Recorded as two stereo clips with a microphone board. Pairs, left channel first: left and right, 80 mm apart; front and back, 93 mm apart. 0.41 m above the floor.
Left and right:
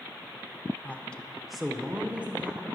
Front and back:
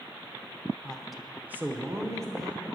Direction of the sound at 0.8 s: 60° left.